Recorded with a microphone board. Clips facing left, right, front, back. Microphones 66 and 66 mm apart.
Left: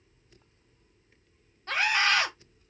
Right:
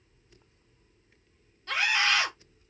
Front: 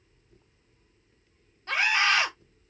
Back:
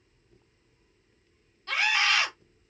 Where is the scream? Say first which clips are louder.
Left 1 dB, front 2 dB; 50° left, 1.8 m.